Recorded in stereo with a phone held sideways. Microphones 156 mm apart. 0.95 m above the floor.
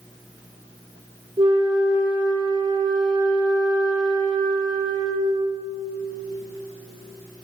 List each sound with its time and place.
1.4 s a flute: 30° right (ahead or behind), 2.5 m